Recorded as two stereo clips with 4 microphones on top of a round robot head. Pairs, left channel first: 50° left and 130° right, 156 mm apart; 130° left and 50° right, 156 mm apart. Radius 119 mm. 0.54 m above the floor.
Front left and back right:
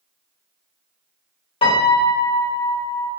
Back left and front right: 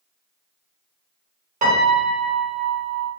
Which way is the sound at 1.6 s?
5° right.